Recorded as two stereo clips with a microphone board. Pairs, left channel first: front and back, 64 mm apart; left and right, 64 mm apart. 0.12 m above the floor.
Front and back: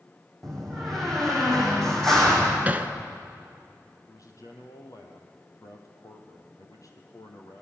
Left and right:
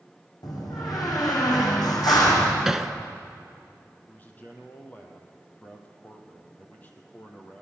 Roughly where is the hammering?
Behind.